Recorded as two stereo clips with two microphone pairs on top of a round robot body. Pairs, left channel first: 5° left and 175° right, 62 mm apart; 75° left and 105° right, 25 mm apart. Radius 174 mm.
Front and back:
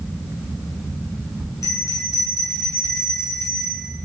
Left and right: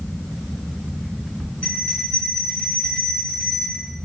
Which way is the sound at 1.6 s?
40° left.